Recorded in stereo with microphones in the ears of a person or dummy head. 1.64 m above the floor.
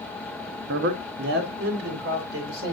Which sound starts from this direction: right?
A man speaking, at 0.7 s.